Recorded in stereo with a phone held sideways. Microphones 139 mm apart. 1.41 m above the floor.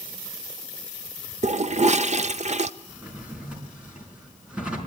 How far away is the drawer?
About 5 m.